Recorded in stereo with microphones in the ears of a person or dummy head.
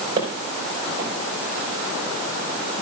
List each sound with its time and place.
0.2 s footsteps: 30° right (ahead or behind), 5.5 m